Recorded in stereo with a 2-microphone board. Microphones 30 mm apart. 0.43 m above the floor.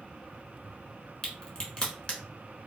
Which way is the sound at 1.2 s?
35° left (ahead or behind).